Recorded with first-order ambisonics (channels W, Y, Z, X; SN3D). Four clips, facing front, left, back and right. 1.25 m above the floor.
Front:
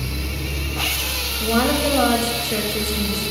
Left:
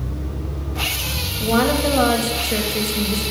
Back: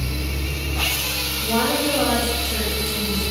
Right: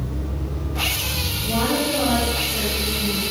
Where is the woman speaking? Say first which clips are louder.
Left 5 dB, front 2 dB; 65° left, 2 m.